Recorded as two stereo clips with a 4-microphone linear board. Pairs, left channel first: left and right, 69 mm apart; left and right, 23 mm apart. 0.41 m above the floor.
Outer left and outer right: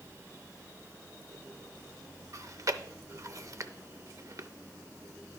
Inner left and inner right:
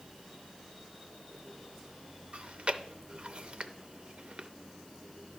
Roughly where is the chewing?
Right.